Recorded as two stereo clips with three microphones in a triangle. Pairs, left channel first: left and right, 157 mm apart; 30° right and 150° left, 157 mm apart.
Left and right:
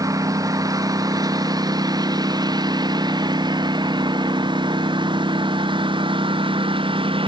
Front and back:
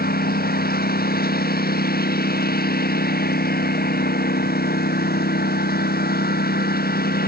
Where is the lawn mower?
20° right; by 7.3 s 35° right.